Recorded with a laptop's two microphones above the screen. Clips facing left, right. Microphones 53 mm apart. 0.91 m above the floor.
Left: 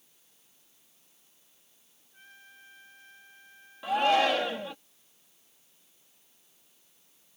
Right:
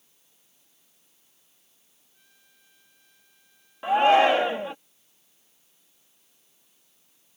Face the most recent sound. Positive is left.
turn(degrees=-30)  # may be behind; listen again after turning